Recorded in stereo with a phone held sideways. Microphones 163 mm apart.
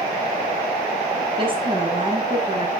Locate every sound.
1.4 s a woman speaking: 30° right (ahead or behind), 9.5 m